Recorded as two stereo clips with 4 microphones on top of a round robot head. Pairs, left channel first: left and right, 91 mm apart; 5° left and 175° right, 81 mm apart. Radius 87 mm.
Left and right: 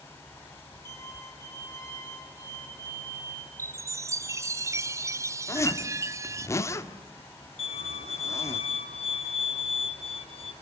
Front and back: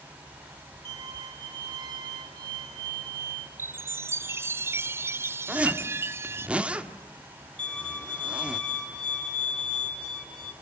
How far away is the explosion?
I don't hear an explosion.